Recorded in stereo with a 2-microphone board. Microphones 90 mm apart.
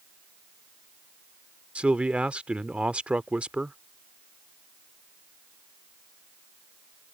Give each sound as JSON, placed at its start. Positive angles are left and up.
{"t": 1.8, "sound": "a man speaking", "side_deg": -15}